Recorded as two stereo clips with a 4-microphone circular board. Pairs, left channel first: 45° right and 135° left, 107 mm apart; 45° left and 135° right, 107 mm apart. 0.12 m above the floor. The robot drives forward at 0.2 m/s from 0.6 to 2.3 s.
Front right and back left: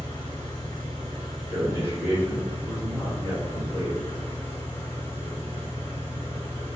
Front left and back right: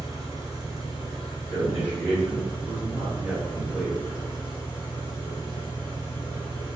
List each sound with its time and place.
0.0 s an engine running: 85° right, 1.2 m; by 6.8 s 105° right, 1.2 m
1.5 s a man speaking: 175° left, 1.5 m